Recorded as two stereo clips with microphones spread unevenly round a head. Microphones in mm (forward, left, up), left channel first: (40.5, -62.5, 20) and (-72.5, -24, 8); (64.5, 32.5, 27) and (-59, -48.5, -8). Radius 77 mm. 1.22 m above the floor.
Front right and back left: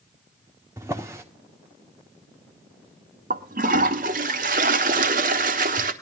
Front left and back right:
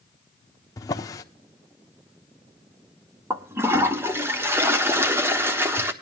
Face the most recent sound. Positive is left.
turn(degrees=130)